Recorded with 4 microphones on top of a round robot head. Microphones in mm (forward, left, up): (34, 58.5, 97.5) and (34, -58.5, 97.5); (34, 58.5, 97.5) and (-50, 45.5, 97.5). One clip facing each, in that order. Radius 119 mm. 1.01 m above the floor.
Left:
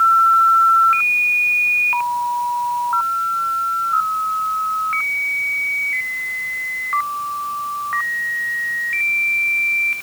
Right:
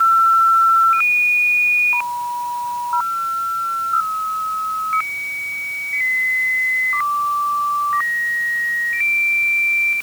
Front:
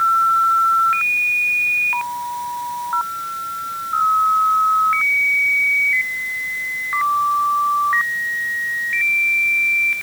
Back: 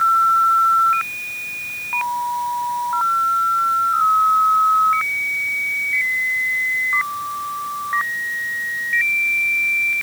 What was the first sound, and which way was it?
Only background noise.